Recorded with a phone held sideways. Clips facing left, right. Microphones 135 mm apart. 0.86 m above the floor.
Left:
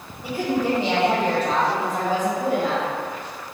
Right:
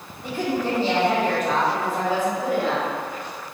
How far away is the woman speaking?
About 1.3 m.